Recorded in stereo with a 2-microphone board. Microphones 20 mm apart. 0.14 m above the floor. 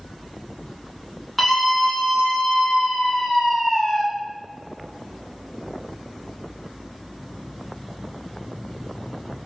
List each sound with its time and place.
1.4 s a scream: 10° left (ahead or behind), 1.1 m; by 4.0 s 55° left (ahead or behind), 2 m